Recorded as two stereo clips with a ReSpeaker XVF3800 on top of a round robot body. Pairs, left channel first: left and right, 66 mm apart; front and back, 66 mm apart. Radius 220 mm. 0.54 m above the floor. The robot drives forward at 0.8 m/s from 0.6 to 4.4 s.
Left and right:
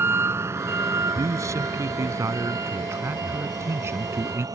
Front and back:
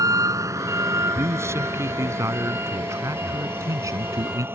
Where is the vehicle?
145° right; by 4.6 s 120° right.